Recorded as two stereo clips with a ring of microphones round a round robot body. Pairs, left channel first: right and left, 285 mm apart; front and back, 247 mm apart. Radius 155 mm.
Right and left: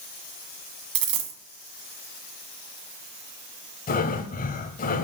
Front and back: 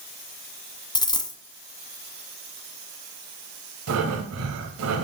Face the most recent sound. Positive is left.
turn(degrees=-150)